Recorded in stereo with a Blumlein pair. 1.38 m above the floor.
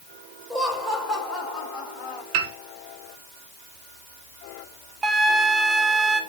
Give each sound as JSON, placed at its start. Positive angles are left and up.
{"t": 0.5, "sound": "laughter", "azimuth_deg": 0, "distance_m": 4.5}
{"t": 2.3, "sound": "a piano", "azimuth_deg": -45, "distance_m": 1.4}
{"t": 5.0, "sound": "a flute", "azimuth_deg": -20, "distance_m": 1.2}